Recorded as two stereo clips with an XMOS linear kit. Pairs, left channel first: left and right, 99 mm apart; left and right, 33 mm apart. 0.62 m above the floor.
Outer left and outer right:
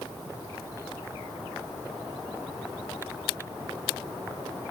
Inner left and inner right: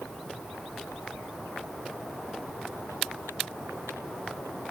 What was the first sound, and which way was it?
Only background noise.